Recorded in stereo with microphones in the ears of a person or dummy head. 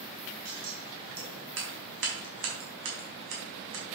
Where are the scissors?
65° right (ahead or behind), 3.5 m.